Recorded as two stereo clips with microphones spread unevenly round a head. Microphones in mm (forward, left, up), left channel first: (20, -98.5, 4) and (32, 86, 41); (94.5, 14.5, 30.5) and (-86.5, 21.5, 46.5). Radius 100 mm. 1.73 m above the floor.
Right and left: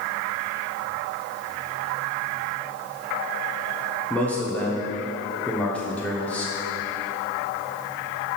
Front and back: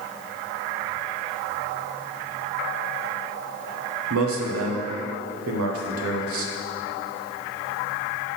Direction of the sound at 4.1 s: 175° right.